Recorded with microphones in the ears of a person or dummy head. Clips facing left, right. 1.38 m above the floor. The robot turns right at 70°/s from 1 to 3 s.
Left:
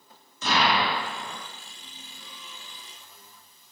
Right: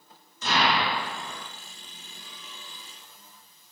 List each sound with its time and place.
0.4 s an explosion: 70° left (ahead or behind), 1.4 m; by 1.4 s 40° left (ahead or behind), 1.4 m